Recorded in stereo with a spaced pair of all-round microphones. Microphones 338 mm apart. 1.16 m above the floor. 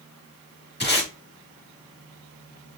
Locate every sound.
0.8 s tape being pulled: 30° left (ahead or behind), 1.2 m